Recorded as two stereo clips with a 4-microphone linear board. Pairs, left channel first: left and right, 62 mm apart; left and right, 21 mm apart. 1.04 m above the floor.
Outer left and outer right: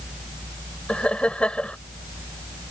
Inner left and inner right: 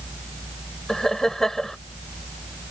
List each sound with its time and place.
0.9 s laughter: 20° left (ahead or behind)